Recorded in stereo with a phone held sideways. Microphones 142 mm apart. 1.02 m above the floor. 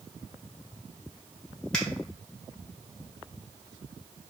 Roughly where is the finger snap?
Centre.